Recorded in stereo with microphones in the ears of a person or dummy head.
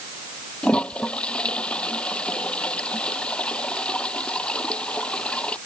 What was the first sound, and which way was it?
A toilet flushing, 5° left (ahead or behind).